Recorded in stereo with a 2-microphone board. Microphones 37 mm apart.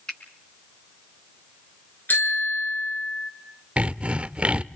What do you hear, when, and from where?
0.1 s a finger snap: 25° left (ahead or behind), 4 m
2.1 s a bicycle bell: 60° left (ahead or behind), 5 m
3.8 s sawing: 35° right (ahead or behind), 0.5 m